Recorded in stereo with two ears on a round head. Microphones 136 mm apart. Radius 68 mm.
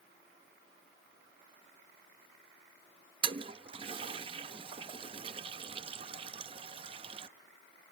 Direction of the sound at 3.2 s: 35° right (ahead or behind).